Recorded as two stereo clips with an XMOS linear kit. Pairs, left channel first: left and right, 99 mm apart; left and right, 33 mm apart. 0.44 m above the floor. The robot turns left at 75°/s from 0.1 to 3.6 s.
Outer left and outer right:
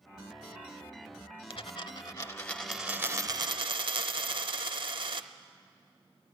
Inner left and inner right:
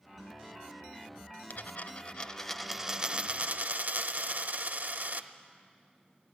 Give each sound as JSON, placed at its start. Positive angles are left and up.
{"t": 1.5, "sound": "a dropped coin", "azimuth_deg": 90, "distance_m": 0.8}